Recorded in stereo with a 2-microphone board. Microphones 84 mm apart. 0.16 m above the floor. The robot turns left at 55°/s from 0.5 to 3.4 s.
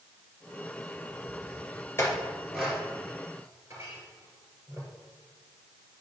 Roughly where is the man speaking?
I don't hear a man speaking.